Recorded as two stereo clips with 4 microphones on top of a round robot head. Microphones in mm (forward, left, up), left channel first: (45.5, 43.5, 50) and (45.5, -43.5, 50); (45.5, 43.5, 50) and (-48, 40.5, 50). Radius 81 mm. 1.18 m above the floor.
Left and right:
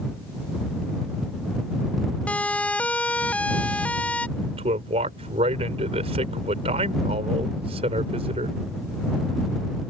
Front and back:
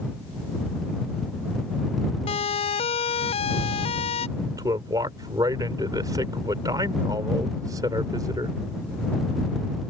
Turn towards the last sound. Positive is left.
turn(degrees=-115)